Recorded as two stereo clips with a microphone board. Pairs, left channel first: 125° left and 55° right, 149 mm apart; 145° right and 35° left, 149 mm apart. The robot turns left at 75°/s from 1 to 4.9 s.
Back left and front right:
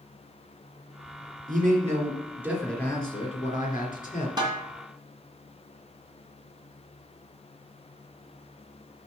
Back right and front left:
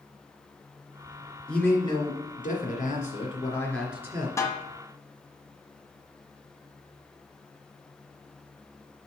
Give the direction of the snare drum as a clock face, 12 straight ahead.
3 o'clock.